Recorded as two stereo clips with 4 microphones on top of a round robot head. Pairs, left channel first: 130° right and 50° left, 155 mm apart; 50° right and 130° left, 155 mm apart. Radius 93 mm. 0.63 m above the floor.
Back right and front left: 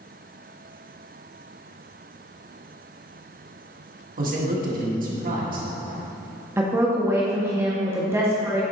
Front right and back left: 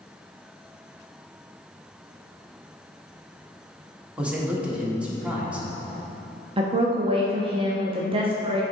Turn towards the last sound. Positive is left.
turn(degrees=110)